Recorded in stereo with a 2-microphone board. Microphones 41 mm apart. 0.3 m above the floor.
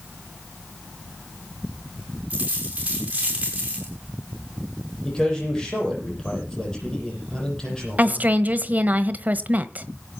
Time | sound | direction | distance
2.3 | a dropped coin | 35° right (ahead or behind) | 7 m
5.0 | a man speaking | 15° left (ahead or behind) | 9 m
8.0 | a woman speaking | 40° right (ahead or behind) | 1.2 m